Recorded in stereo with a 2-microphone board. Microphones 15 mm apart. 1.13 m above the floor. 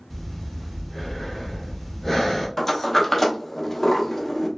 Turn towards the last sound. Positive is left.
turn(degrees=20)  # may be behind; listen again after turning